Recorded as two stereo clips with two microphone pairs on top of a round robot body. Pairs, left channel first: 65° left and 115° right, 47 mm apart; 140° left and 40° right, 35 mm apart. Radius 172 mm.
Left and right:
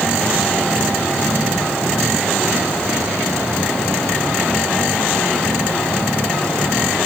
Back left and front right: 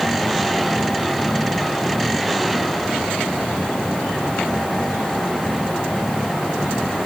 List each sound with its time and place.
Only background noise.